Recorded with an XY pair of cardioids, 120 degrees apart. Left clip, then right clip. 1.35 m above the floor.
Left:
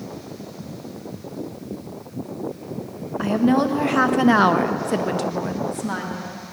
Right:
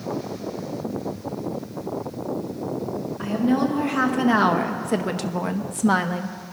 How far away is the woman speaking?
About 1.6 m.